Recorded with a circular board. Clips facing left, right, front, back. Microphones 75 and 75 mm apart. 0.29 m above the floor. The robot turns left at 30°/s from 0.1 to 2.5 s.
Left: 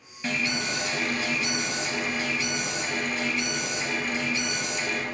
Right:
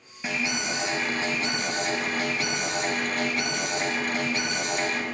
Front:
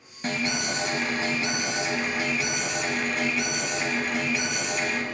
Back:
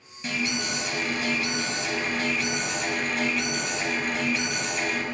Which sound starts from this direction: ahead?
An alarm, at 0.2 s.